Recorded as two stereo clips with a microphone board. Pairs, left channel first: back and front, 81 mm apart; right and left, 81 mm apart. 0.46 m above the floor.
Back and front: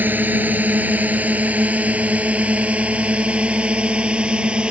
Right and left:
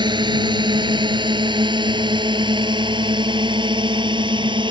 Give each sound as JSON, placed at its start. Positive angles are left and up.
{"t": 0.0, "sound": "a drone", "azimuth_deg": 70}